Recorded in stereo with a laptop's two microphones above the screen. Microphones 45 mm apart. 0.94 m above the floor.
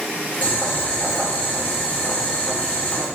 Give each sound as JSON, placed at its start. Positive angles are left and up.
{"t": 0.4, "sound": "boiling", "side_deg": 40, "distance_m": 0.7}